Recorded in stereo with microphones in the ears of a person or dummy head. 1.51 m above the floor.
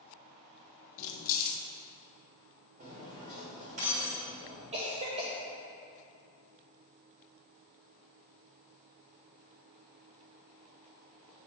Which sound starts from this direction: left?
Keys jangling, at 1.0 s.